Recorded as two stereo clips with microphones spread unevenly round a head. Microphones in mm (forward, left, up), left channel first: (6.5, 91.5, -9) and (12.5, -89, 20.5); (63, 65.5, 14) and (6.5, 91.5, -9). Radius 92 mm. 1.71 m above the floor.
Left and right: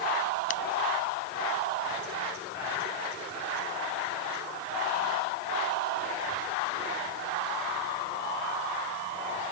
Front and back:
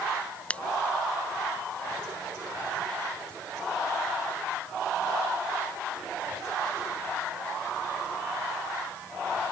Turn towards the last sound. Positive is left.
turn(degrees=40)